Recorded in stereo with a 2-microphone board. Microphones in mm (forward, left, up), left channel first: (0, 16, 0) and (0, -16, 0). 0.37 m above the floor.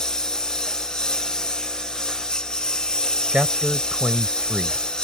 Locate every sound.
0.0 s a lawn mower: 20° left (ahead or behind); by 5.0 s 25° left (ahead or behind)
3.3 s a man speaking: 40° right (ahead or behind)